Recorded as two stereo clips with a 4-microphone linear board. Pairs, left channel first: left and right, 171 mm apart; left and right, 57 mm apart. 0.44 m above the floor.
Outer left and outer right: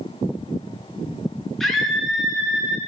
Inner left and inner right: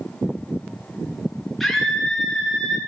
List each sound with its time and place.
1.6 s a scream: centre (ahead or behind), 5 m; by 2.8 s 5° right (ahead or behind), 6 m